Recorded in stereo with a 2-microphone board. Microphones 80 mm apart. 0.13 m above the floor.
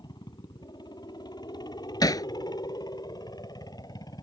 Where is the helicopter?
60° left (ahead or behind); by 4.2 s 55° left (ahead or behind).